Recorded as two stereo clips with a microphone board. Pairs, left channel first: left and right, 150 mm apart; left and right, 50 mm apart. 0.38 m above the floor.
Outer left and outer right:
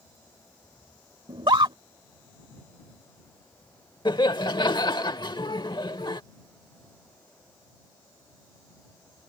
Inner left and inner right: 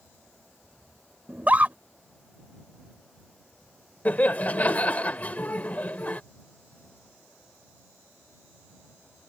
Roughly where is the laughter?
Left.